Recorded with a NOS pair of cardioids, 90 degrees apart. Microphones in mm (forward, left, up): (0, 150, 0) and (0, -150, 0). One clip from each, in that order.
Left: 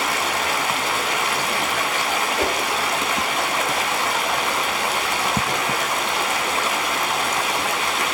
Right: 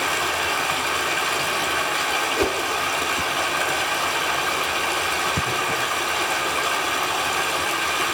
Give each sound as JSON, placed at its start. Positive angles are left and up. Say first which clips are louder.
{"t": 0.0, "sound": "running water", "louder": "left 2 dB", "azimuth_deg": 60, "distance_m": 4.0}
{"t": 2.4, "sound": "a whoosh", "louder": "left 1 dB", "azimuth_deg": 5, "distance_m": 1.5}